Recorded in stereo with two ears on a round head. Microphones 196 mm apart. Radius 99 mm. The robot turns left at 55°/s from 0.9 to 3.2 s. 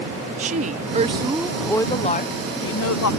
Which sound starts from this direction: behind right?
A woman speaking, at 0.4 s.